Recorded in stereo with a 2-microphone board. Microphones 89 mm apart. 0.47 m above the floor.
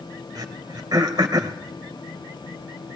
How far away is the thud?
I don't hear a thud.